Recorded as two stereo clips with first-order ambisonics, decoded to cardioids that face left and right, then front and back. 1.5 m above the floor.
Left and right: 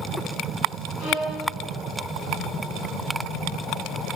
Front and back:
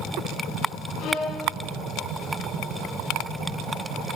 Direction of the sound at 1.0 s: 35° left.